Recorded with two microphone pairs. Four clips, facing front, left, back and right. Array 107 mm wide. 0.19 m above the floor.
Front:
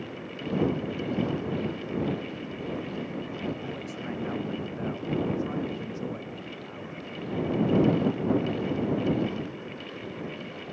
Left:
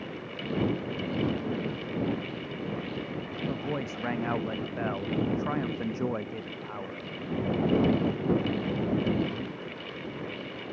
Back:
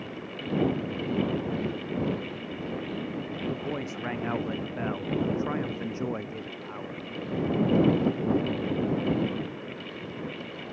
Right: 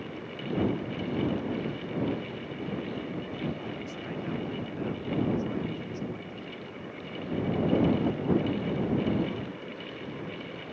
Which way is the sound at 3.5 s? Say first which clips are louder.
Left 3 dB, back 2 dB; 110° left.